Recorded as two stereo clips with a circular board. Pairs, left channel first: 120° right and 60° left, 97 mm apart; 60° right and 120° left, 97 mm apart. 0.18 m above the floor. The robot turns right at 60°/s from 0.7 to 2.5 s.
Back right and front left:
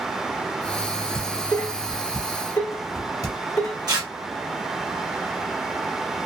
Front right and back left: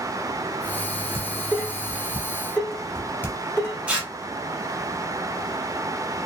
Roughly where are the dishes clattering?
Behind.